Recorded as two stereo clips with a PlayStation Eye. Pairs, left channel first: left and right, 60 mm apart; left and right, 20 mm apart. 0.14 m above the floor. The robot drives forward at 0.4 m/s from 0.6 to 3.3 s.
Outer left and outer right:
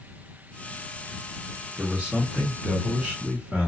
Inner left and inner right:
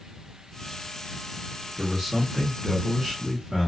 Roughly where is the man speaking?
Centre.